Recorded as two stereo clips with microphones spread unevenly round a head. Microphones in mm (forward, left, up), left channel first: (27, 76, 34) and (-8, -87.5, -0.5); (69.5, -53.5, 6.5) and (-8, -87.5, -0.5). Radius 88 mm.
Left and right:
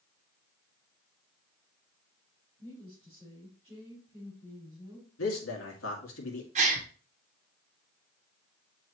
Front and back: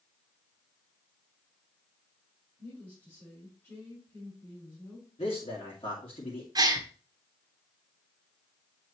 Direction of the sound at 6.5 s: 130° right.